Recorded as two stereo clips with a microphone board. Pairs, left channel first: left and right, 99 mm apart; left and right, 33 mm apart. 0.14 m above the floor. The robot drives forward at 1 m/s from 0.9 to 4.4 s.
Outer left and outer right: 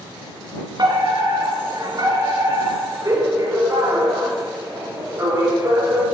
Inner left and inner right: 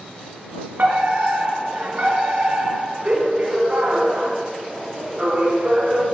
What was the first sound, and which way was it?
A fire alarm, 50° right (ahead or behind).